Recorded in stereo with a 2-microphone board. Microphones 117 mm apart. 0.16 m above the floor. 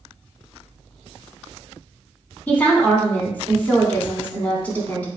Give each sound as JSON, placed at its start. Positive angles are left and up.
{"t": 2.5, "sound": "a woman speaking", "side_deg": 15, "distance_m": 1.1}